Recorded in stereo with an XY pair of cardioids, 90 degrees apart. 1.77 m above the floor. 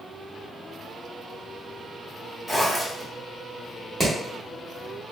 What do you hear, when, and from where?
2.5 s a zipper: 5° left, 1.3 m
4.0 s hammering: 10° right, 1.3 m